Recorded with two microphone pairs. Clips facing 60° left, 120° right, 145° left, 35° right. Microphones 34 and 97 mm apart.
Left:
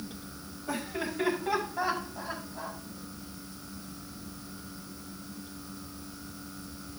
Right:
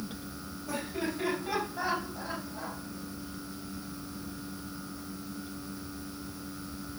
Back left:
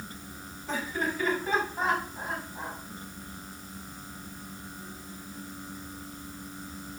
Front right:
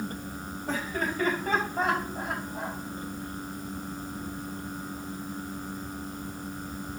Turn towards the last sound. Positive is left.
turn(degrees=-30)